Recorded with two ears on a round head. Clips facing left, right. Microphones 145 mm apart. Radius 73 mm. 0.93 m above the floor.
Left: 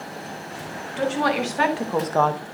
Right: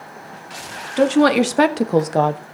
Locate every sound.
1.0 s a woman speaking: 70° right (ahead or behind), 2 m; by 2.4 s 5° right (ahead or behind), 0.9 m